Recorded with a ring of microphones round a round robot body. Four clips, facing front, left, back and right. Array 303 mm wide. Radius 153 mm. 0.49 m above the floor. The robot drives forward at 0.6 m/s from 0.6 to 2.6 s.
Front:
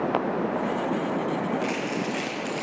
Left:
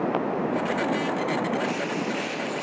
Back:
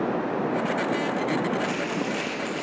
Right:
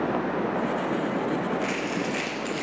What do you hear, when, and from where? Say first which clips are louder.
1.6 s crumpling: left 1 dB, even; 80° right, 5.5 m; by 2.6 s 85° right, 5.5 m